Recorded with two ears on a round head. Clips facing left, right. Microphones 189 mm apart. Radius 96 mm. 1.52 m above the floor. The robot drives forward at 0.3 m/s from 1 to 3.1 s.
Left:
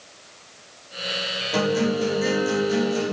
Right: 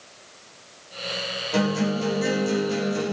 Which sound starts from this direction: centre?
A guitar, at 1.5 s.